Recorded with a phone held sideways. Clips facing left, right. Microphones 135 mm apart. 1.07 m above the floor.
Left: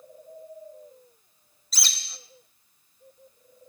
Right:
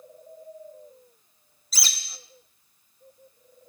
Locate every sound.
1.7 s a bird: centre (ahead or behind), 1.2 m